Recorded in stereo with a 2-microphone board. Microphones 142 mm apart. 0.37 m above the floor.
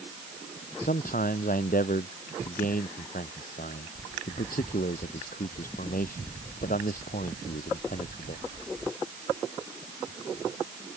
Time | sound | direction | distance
0.8 | a man speaking | 85° left | ?